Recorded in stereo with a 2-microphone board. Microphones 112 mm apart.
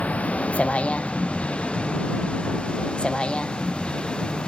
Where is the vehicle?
10° left (ahead or behind).